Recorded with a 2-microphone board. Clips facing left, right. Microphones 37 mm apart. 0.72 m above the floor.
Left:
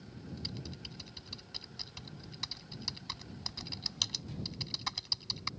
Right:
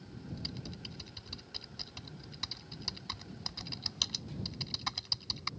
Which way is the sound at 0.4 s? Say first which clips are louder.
Left 1 dB; 5° right (ahead or behind).